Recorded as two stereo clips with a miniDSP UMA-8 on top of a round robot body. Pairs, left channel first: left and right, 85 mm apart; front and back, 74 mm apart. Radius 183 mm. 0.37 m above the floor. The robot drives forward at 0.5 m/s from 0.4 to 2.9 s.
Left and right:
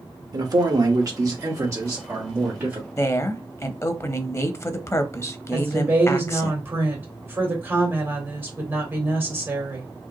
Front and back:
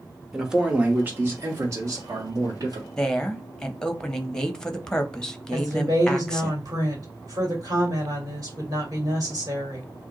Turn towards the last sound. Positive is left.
turn(degrees=-155)